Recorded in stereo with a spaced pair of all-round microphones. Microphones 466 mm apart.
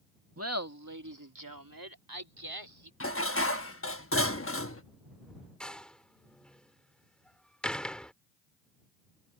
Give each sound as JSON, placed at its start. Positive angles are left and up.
{"t": 0.4, "sound": "laughter", "side_deg": -30}
{"t": 3.0, "sound": "dishes clattering", "side_deg": 30}
{"t": 5.6, "sound": "a door slam", "side_deg": 0}